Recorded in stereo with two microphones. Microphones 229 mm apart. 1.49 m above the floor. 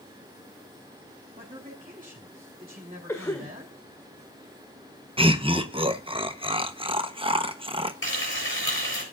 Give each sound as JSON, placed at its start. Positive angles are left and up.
{"t": 1.4, "sound": "a man speaking", "side_deg": -35, "distance_m": 3.0}
{"t": 3.1, "sound": "a cough", "side_deg": 10, "distance_m": 2.0}
{"t": 5.2, "sound": "laughter", "side_deg": -25, "distance_m": 1.0}
{"t": 8.0, "sound": "frying", "side_deg": 60, "distance_m": 7.5}